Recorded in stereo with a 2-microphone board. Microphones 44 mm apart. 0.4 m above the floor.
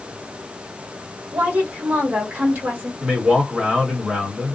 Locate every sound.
1.3 s a woman speaking: 50° right (ahead or behind), 1.6 m
3.0 s a man speaking: 30° right (ahead or behind), 1.4 m